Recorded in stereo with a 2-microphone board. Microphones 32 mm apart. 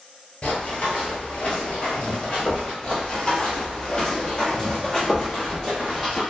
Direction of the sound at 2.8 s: 30° left (ahead or behind).